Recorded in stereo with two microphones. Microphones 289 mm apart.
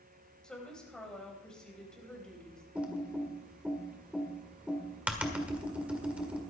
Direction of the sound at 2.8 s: 5° right (ahead or behind).